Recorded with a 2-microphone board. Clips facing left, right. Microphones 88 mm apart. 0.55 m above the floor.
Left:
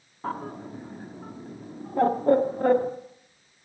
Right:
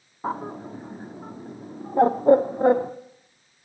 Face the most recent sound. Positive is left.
turn(degrees=-20)  # may be behind; listen again after turning